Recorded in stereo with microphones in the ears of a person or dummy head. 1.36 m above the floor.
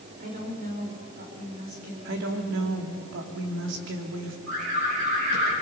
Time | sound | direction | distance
0.2 | a woman speaking | 45° right (ahead or behind) | 5.5 m
2.0 | a woman speaking | 65° right (ahead or behind) | 2.5 m
4.5 | an alarm | 75° right (ahead or behind) | 8.5 m